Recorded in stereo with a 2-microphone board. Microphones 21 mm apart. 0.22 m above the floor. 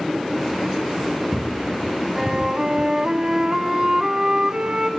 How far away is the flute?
About 1.9 m.